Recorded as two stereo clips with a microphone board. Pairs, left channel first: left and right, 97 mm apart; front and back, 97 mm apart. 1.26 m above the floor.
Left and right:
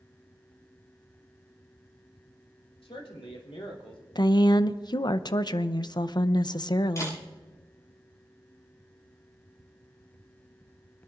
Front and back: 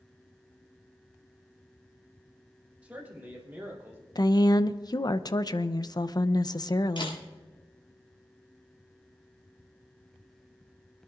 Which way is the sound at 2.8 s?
105° left.